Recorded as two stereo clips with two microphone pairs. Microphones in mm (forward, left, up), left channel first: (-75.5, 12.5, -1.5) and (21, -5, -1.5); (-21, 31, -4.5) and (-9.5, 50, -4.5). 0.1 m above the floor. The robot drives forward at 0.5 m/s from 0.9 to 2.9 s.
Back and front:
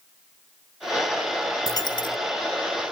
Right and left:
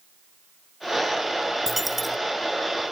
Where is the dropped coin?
135° left, 0.6 m; by 2.2 s 150° left, 0.8 m.